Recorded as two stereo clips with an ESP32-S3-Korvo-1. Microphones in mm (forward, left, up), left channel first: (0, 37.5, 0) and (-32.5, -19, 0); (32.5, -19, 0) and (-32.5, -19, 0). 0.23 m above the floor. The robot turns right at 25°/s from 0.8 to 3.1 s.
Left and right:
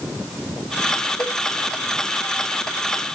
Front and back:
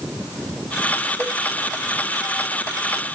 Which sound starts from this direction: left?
A cowbell, at 1.2 s.